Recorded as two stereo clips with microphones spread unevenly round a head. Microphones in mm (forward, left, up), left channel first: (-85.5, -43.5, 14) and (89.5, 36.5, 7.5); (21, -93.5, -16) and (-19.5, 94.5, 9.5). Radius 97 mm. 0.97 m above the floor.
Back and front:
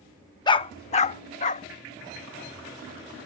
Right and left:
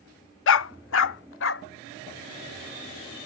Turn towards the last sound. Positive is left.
turn(degrees=-105)